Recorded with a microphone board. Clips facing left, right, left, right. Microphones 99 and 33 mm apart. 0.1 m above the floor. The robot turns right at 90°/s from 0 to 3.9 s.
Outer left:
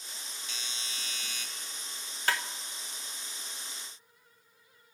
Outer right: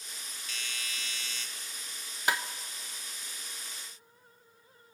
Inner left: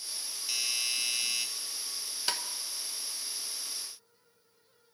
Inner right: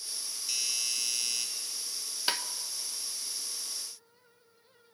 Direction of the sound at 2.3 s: 15° right (ahead or behind).